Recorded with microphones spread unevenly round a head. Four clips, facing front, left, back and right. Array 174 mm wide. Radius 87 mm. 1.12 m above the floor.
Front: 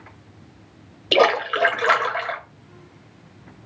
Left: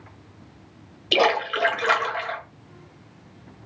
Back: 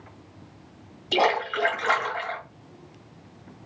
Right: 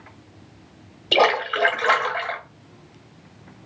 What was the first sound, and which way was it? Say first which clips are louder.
A splash: right 2 dB, front 5 dB; 10° right.